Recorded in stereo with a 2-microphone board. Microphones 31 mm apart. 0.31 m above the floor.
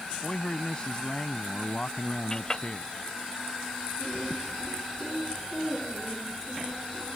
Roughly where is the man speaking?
Left.